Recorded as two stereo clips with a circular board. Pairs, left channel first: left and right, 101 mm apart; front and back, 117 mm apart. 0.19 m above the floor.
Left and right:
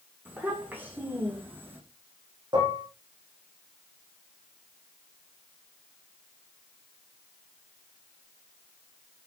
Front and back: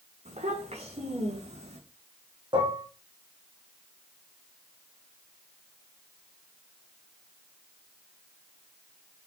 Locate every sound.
0.2 s a child speaking: 160° right, 9 m
2.5 s dishes clattering: 135° right, 7 m